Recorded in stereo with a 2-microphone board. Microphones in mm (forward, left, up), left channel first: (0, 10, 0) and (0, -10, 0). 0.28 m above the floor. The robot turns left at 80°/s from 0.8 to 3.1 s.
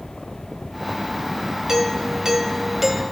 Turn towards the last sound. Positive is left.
turn(degrees=180)